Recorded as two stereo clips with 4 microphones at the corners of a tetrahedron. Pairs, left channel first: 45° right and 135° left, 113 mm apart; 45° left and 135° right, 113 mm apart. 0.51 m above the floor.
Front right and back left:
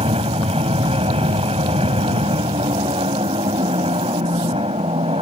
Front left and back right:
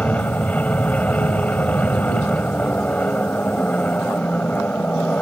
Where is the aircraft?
120° left.